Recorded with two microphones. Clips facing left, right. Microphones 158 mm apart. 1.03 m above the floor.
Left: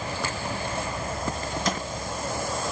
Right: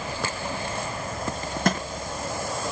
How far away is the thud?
About 5.5 m.